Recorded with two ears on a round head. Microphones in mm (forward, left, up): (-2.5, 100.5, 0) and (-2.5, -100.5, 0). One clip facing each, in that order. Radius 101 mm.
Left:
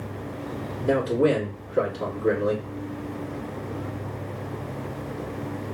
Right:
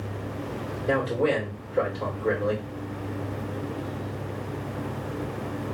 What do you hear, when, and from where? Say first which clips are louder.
0.8 s a man speaking: left 4 dB; 60° left (ahead or behind), 2.0 m